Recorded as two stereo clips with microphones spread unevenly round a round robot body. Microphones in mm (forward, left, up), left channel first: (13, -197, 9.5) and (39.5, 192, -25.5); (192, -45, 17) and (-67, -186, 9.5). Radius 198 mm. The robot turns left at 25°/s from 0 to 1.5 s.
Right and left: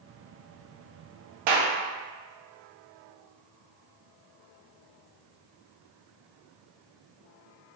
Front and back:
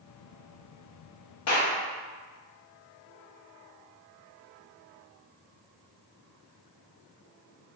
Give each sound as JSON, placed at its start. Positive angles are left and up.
{"t": 1.5, "sound": "a clap", "azimuth_deg": 80, "distance_m": 1.2}